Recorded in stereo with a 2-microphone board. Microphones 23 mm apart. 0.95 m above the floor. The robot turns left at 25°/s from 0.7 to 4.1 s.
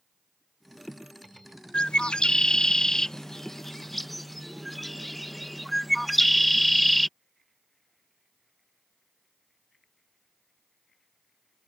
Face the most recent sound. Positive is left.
turn(degrees=0)  # may be behind; listen again after turning